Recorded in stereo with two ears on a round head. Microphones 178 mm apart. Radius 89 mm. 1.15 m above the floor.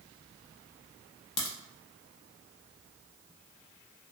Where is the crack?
20° left (ahead or behind), 0.8 m.